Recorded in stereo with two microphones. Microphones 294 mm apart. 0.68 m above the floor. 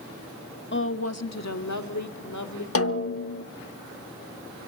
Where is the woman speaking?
40° left (ahead or behind), 0.8 m; by 2.6 s 75° left (ahead or behind), 2 m.